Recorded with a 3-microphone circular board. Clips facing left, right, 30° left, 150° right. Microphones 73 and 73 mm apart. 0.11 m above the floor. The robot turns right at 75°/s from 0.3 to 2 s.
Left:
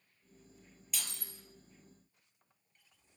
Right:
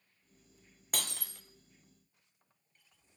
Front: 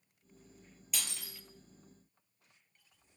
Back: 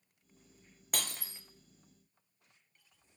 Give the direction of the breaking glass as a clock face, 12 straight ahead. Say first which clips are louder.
Right 6 dB, back 4 dB; 4 o'clock.